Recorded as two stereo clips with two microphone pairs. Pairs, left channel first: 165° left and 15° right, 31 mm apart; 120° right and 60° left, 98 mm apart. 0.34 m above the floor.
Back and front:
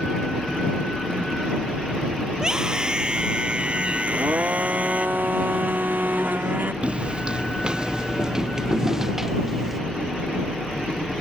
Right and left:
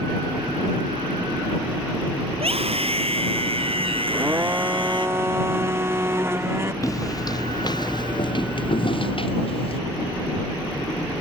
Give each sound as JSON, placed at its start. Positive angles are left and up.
{"t": 2.3, "sound": "a scream", "azimuth_deg": 50}
{"t": 4.1, "sound": "a blender", "azimuth_deg": -10}
{"t": 6.8, "sound": "footsteps", "azimuth_deg": -70}